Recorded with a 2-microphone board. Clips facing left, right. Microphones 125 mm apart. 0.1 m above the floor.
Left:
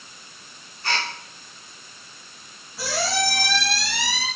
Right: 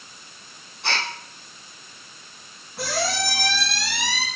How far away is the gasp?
About 1.9 m.